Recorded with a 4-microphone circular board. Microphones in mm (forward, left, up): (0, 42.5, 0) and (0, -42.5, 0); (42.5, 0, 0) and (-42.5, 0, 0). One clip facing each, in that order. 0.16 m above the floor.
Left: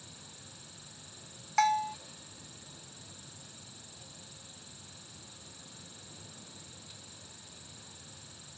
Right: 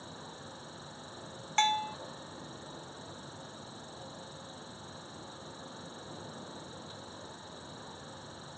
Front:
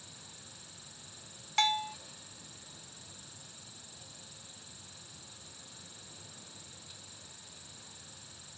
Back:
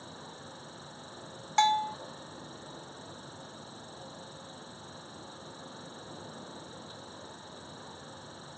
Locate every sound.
0.0 s an insect: 135° right
1.6 s a bell: 155° left